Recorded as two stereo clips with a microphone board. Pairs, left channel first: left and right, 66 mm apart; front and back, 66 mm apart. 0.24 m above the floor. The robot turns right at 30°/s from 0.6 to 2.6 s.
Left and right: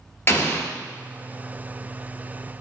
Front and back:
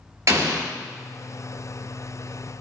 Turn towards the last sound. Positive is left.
turn(degrees=-155)